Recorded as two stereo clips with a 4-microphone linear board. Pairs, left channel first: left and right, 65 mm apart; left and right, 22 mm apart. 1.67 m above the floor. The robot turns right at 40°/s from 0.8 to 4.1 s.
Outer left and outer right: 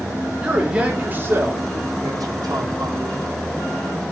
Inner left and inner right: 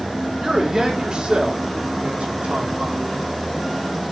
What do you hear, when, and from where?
0.4 s a man speaking: 165° right, 3.5 m; by 3.2 s 65° right, 3.5 m